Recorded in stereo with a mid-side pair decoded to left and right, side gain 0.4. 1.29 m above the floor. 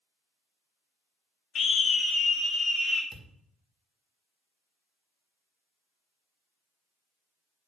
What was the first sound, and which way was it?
A scream, 65° left.